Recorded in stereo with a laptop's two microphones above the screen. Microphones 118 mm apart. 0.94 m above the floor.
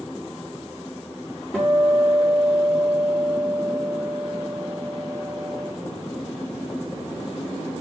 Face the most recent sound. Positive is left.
turn(degrees=5)  # may be behind; listen again after turning